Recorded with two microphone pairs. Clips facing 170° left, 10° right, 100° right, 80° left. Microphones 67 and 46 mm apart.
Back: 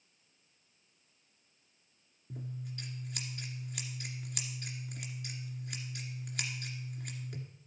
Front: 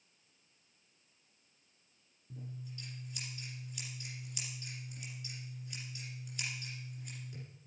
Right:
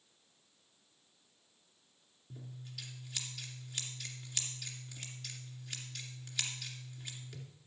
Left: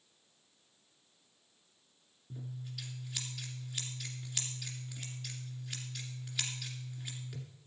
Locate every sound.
2.3 s scissors: 170° left, 2 m